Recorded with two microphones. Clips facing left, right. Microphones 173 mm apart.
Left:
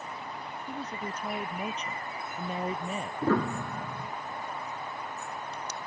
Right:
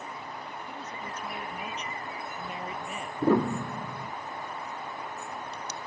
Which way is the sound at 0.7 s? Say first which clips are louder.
Left 3 dB; 35° left (ahead or behind).